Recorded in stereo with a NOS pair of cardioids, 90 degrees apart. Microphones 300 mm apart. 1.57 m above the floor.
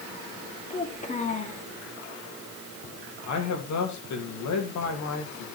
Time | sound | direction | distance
0.7 | a child speaking | 25° left | 2.5 m
3.3 | a man speaking | 65° left | 3.5 m